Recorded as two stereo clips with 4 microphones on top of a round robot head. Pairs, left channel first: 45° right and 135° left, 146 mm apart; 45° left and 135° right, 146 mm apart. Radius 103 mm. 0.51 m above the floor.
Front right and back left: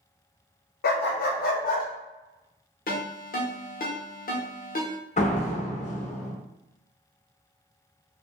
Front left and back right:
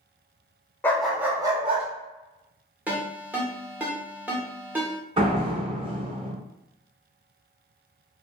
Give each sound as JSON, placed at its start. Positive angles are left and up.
{"t": 0.8, "sound": "a dog barking", "azimuth_deg": -30, "distance_m": 0.5}
{"t": 2.9, "sound": "a ringtone", "azimuth_deg": -55, "distance_m": 0.9}
{"t": 5.2, "sound": "a door slam", "azimuth_deg": -80, "distance_m": 0.9}